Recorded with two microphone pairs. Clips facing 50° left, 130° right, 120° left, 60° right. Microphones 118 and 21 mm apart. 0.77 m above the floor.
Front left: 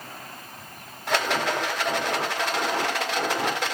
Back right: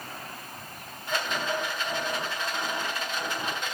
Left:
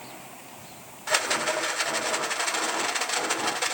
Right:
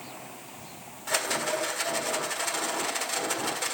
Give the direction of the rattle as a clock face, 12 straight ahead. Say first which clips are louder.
Front left 5 dB, left 3 dB; 10 o'clock.